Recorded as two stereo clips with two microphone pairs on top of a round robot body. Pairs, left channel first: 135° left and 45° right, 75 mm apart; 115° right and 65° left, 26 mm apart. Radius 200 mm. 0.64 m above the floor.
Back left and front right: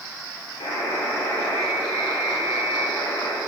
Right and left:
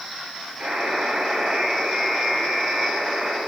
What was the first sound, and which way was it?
A buzzer, 120° left.